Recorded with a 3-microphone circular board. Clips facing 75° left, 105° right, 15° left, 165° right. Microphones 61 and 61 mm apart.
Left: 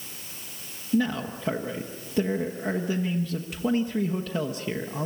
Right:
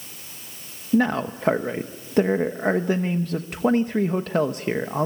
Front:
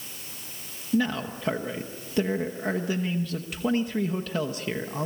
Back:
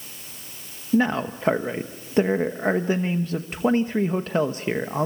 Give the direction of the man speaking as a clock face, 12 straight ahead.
4 o'clock.